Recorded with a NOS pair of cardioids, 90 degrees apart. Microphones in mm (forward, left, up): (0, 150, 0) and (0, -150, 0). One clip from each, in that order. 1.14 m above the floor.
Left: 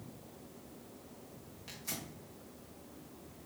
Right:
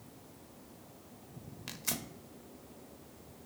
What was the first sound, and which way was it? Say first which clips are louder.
Tearing paper: right 5 dB; 55° right.